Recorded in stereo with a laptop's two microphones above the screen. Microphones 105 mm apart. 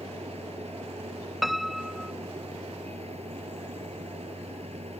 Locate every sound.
0.0 s a machine running: 90° right
1.4 s a piano: centre (ahead or behind)